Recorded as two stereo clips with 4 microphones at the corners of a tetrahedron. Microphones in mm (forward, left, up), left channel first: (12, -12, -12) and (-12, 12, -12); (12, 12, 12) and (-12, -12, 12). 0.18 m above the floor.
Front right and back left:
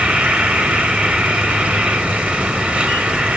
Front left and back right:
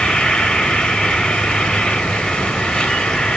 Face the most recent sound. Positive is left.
turn(degrees=105)